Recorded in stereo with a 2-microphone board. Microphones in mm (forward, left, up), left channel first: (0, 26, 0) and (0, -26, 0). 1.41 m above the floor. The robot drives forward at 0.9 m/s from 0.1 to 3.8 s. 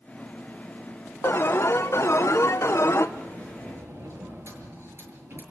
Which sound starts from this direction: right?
A sliding door, at 3.2 s.